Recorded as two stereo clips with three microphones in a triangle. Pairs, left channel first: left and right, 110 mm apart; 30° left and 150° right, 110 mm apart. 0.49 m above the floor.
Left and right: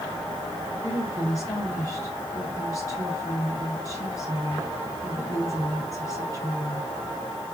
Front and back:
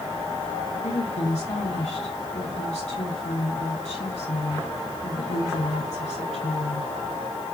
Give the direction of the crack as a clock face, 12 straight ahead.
I don't hear a crack.